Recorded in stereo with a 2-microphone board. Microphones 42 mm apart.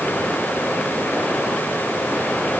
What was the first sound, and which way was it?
Only background noise.